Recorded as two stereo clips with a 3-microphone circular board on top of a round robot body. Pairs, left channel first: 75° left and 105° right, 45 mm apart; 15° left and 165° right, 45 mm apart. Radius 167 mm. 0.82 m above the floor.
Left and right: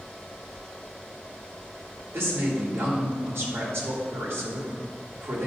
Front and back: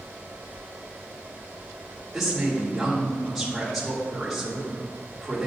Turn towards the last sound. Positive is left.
turn(degrees=-75)